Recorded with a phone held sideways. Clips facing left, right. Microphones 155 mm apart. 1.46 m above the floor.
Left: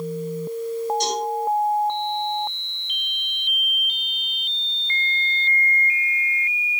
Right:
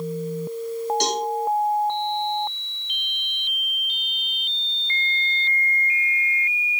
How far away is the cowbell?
About 7.5 m.